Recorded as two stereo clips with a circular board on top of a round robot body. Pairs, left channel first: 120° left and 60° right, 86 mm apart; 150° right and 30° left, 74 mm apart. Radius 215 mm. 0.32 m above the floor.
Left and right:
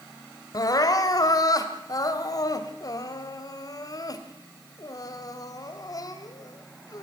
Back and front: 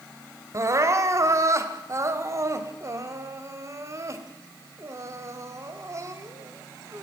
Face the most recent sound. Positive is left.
turn(degrees=75)